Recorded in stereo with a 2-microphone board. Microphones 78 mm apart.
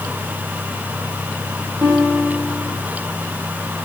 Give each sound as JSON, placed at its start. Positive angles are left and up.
{"t": 1.8, "sound": "a guitar", "side_deg": -35, "distance_m": 5.0}